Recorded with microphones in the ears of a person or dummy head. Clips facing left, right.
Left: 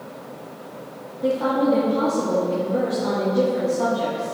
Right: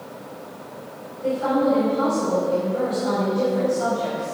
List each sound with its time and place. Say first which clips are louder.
1.2 s a woman speaking: even; 80° left, 2 m